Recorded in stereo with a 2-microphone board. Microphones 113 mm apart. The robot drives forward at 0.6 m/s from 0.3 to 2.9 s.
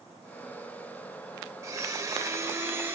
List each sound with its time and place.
1.6 s a blender: 30° right (ahead or behind), 0.9 m; by 3.0 s 20° right (ahead or behind), 1.2 m